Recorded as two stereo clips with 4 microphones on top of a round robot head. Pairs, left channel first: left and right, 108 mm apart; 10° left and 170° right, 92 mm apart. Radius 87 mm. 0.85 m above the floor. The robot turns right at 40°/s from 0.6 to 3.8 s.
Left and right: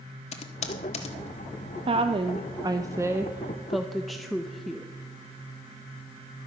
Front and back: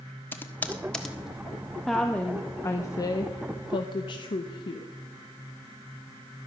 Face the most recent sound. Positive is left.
turn(degrees=0)